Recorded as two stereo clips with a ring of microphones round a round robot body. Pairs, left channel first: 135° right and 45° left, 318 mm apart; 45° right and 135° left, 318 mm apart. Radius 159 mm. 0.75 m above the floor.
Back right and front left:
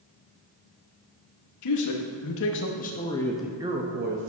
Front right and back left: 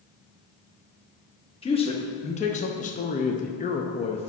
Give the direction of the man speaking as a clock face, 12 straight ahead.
4 o'clock.